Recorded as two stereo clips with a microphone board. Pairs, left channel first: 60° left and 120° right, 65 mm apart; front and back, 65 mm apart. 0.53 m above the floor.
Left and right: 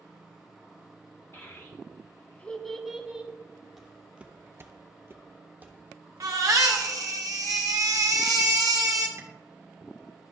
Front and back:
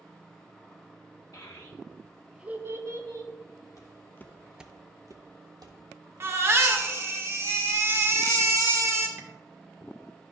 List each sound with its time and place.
1.3 s a child speaking: 20° left, 1.0 m; by 3.3 s 165° left, 1.1 m
3.8 s footsteps: 35° right, 1.1 m; by 6.9 s 170° left, 3 m
6.2 s a baby crying: 135° right, 1.0 m
9.2 s tapping: 155° right, 1.2 m